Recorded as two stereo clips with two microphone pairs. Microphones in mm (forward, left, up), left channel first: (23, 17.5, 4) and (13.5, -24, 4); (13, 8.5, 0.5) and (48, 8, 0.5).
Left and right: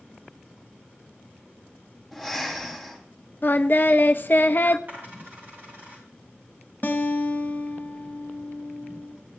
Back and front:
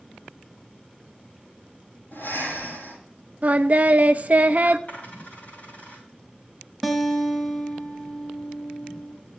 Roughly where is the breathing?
Behind.